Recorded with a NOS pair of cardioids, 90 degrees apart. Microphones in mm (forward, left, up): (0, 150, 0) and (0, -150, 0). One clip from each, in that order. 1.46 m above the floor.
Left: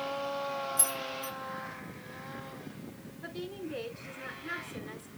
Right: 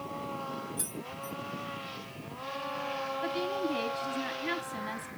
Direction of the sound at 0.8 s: 45° left.